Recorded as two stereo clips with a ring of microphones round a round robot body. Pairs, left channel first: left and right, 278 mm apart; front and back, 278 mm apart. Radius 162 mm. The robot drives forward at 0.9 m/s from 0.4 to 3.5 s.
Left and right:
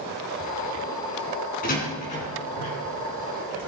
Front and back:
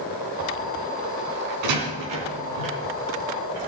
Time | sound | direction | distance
1.6 | a door slam | 155° left | 3 m